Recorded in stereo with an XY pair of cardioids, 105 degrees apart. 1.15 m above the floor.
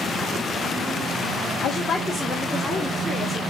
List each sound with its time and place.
1.6 s a woman speaking: 65° left, 0.6 m; by 3.4 s 15° left, 2 m